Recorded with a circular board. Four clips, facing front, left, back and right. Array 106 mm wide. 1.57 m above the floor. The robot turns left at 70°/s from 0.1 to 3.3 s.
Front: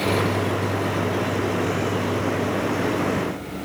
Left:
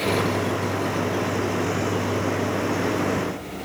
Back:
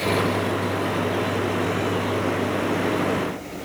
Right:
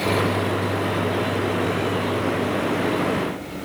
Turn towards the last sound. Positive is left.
No sound to turn to.